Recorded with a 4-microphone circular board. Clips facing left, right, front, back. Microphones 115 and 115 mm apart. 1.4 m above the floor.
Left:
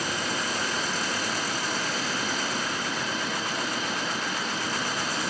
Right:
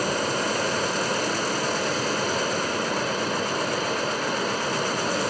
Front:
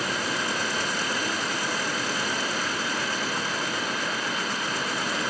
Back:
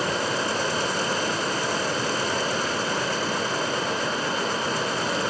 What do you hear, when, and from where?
0.0 s running water: 125° right, 2.5 m